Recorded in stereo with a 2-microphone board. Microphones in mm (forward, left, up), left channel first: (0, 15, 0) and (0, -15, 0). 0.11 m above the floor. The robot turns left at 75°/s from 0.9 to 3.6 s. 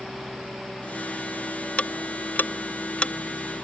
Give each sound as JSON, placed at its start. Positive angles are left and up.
{"t": 1.8, "sound": "ticking", "side_deg": 55}